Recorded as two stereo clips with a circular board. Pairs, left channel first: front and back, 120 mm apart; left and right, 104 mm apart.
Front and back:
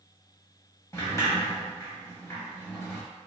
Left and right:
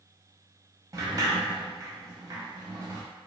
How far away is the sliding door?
About 0.6 m.